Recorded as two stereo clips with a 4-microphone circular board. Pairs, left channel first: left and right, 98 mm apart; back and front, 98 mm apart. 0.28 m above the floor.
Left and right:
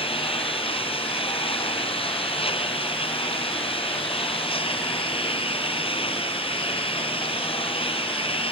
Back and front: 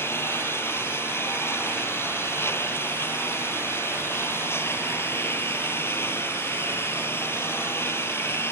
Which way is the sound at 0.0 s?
115° left.